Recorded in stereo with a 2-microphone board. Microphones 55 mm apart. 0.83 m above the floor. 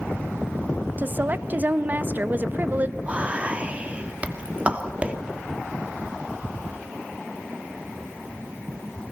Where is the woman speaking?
35° right (ahead or behind), 0.8 m.